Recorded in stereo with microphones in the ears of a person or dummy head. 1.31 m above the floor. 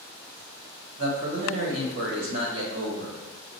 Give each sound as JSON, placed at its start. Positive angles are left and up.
{"t": 1.0, "sound": "a man speaking", "side_deg": -75, "distance_m": 1.5}